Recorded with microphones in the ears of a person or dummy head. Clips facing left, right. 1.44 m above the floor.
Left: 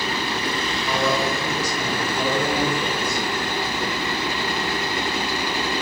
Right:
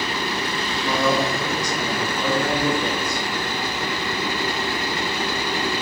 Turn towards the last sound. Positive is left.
turn(degrees=30)  # may be behind; listen again after turning